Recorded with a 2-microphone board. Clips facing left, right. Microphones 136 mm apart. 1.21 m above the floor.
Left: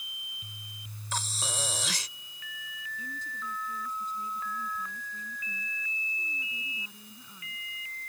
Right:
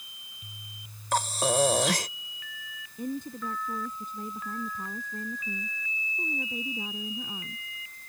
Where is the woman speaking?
55° right (ahead or behind).